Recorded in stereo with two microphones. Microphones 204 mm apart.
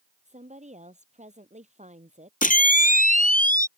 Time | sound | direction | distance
0.2 | a woman speaking | 35° right (ahead or behind) | ?
2.4 | a camera shutter | 40° left (ahead or behind) | ?